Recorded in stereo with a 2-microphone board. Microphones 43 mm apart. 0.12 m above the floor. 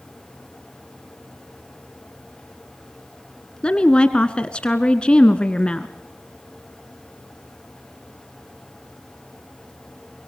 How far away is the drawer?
No drawer in this recording.